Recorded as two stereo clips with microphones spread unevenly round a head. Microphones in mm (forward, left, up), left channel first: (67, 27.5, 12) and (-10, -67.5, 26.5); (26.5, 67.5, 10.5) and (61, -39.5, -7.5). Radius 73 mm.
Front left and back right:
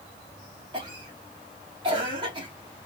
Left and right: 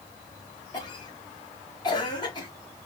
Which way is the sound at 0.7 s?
175° left.